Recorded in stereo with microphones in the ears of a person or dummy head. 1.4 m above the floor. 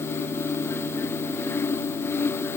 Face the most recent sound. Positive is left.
No sound to turn to.